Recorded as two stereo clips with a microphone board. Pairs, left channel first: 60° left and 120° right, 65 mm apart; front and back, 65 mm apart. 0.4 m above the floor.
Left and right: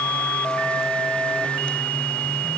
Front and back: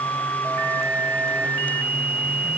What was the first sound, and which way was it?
Only background noise.